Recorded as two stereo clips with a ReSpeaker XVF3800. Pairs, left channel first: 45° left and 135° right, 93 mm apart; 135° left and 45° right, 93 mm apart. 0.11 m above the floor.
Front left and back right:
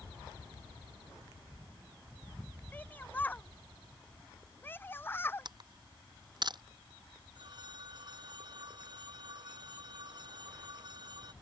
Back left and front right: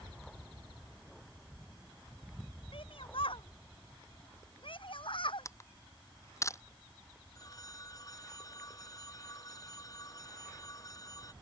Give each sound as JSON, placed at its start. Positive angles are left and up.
{"t": 2.7, "sound": "a shout", "azimuth_deg": 115}
{"t": 5.5, "sound": "a camera shutter", "azimuth_deg": -170}
{"t": 7.3, "sound": "a phone ringing", "azimuth_deg": -175}